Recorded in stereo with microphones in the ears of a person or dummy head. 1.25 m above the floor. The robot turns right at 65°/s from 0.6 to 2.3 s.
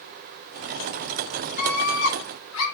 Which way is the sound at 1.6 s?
40° left.